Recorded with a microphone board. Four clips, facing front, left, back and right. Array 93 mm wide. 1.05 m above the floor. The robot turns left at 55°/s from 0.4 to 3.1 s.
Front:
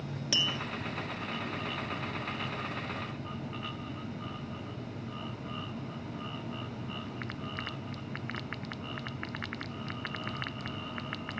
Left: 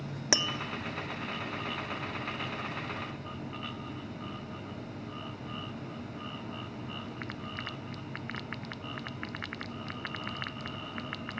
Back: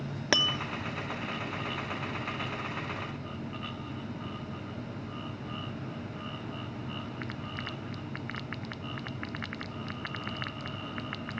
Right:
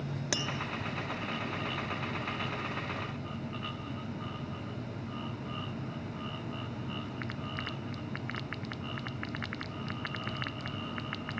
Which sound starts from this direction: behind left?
Tapping, at 0.3 s.